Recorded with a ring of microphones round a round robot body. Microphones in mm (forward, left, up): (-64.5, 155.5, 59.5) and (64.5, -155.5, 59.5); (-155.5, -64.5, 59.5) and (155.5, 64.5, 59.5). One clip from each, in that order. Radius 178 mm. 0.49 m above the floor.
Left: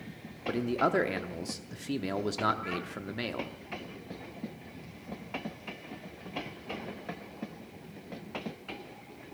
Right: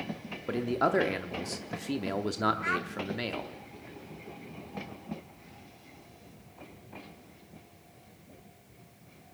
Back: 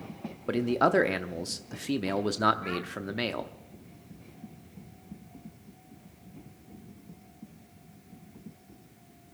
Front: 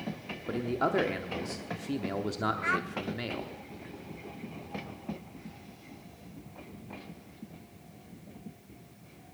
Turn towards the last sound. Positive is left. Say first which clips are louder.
# right 6 dB, front 5 dB
turn(degrees=-20)